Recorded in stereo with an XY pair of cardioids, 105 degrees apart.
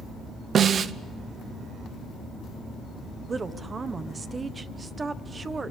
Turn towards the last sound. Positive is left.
turn(degrees=-30)